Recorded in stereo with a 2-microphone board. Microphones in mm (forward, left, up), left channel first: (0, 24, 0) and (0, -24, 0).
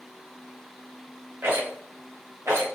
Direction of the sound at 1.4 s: 65° right (ahead or behind).